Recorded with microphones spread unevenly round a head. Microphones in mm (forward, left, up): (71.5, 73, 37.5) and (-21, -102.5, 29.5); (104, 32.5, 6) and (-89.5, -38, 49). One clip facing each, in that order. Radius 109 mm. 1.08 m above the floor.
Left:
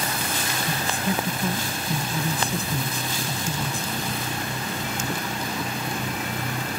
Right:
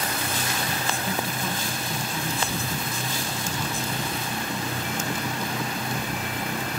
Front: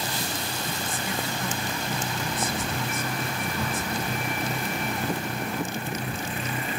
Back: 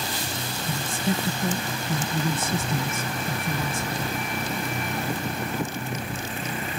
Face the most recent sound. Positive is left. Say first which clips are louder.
# left 3 dB, back 9 dB
turn(degrees=135)